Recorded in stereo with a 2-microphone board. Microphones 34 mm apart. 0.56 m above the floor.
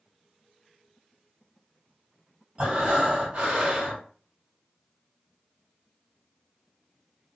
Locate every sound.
2.6 s breathing: 50° right (ahead or behind), 1.7 m